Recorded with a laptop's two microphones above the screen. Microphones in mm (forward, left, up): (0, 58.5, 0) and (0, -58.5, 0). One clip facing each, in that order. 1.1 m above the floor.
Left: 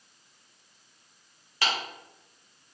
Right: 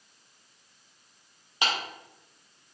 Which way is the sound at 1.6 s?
20° right (ahead or behind).